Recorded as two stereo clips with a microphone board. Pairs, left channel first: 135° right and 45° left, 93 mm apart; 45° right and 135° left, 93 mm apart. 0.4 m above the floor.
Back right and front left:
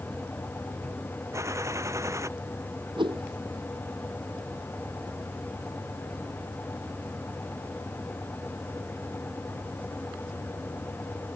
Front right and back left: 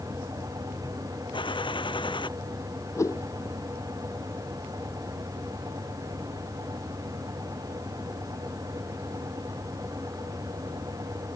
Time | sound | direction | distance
1.3 | a gunshot | 15° right | ?
3.0 | a whoosh | 10° left | ?